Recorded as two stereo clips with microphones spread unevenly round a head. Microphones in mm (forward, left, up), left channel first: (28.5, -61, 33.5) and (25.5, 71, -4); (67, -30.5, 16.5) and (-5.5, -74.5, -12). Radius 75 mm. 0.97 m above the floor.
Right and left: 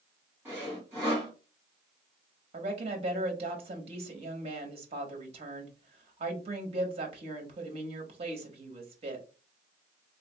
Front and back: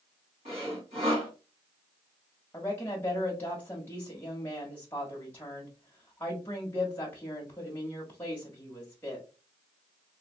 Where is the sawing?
175° left, 2.5 m.